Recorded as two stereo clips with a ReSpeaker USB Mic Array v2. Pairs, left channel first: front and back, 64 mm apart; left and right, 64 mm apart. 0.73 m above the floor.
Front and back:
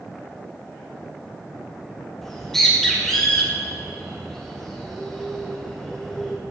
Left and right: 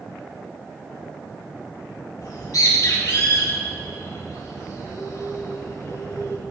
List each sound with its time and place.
2.2 s a bird: 85° left, 3 m